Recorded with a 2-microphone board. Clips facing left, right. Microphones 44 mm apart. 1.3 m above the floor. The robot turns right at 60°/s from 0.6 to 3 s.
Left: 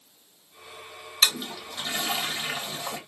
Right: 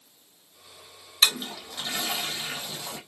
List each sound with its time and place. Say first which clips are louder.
1.2 s a toilet flushing: right 1 dB; 20° right (ahead or behind), 1.2 m; by 3.0 s 55° left (ahead or behind), 1.2 m